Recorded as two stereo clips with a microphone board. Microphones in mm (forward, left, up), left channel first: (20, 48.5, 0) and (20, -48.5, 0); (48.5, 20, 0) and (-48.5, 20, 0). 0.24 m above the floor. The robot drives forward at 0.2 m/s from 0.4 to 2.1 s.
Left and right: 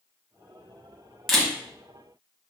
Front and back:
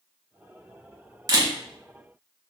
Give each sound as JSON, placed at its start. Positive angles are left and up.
{"t": 1.3, "sound": "a camera shutter", "azimuth_deg": 180, "distance_m": 0.8}